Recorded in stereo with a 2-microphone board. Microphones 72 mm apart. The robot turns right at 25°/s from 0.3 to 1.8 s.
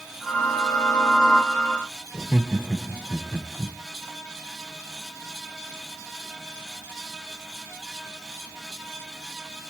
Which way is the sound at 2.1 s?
15° right (ahead or behind).